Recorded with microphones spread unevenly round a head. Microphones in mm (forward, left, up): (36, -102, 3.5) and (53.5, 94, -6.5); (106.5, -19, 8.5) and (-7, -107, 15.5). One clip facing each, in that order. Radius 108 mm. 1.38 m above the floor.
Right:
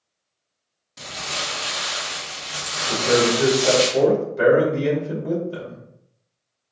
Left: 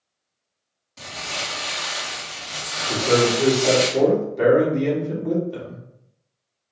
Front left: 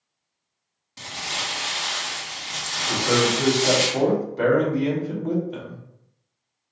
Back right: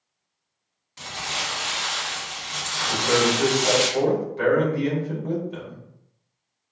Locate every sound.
1.0 s crumpling: 15° right, 1.6 m
2.9 s a man speaking: 15° right, 2.5 m